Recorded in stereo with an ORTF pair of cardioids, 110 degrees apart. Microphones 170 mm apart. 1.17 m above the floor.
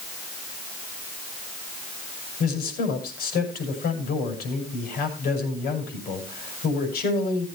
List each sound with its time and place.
2.4 s a man speaking: 65° left, 6.5 m